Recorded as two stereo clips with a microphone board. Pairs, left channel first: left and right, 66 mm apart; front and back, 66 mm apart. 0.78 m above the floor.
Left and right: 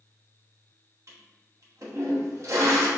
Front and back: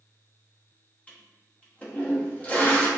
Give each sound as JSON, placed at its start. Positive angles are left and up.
{"t": 1.1, "sound": "a toilet flushing", "azimuth_deg": -65, "distance_m": 1.0}